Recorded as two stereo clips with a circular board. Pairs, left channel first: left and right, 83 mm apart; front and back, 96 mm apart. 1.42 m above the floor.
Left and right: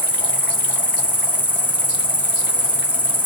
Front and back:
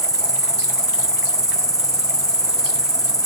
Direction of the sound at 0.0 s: 25° left.